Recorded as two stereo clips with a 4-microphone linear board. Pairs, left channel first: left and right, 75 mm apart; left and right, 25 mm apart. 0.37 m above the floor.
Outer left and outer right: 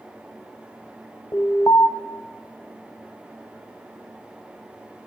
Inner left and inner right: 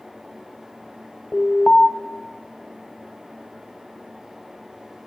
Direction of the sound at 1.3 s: 50° left (ahead or behind).